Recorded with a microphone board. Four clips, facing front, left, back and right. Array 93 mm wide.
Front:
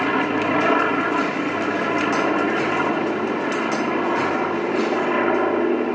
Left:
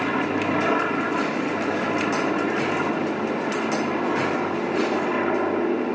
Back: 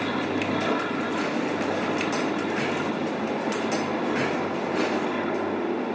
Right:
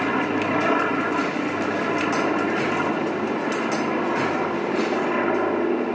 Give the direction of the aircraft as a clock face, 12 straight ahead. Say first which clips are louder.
Right 1 dB, front 6 dB; 12 o'clock.